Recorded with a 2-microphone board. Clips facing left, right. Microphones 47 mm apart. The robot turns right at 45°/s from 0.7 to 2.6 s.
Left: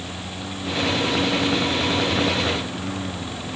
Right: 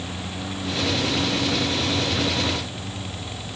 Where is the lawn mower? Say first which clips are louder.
Right 1 dB; straight ahead; by 3.6 s 85° left.